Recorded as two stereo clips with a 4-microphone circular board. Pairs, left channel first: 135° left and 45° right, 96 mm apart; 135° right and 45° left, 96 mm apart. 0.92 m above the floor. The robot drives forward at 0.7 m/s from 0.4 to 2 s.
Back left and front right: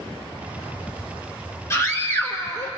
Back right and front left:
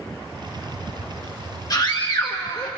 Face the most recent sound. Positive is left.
turn(degrees=-170)